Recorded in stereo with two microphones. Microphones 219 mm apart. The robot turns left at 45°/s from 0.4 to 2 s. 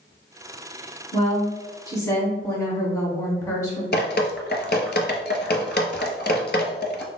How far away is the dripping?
About 0.5 m.